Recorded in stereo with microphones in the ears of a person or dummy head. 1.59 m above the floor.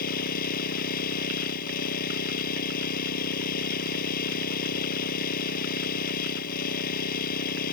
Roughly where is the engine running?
Left.